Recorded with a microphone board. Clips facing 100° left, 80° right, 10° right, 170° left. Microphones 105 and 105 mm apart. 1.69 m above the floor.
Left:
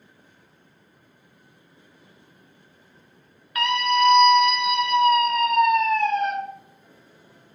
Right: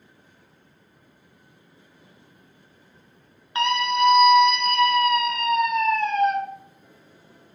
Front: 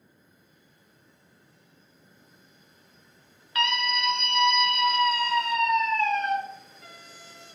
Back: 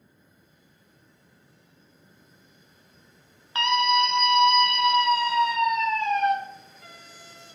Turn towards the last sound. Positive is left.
turn(degrees=90)